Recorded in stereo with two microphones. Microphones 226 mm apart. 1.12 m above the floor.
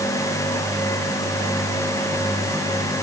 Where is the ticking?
I don't hear ticking.